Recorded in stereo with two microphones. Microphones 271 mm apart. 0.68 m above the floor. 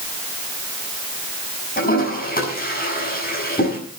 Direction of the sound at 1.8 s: 35° left (ahead or behind).